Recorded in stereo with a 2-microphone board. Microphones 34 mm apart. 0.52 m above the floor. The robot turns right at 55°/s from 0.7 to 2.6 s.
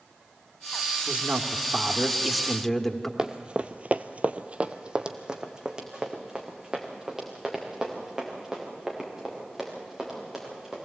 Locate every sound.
1.1 s a man speaking: 70° right, 1.2 m; by 3.1 s 15° left, 1.2 m
3.2 s running footsteps: 25° right (ahead or behind), 1.0 m; by 10.8 s 10° right (ahead or behind), 7 m